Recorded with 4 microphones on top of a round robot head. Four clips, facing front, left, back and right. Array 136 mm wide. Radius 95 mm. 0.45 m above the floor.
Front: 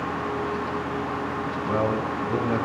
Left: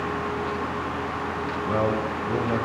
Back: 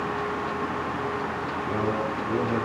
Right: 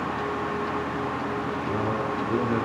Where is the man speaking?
55° left, 5.5 m.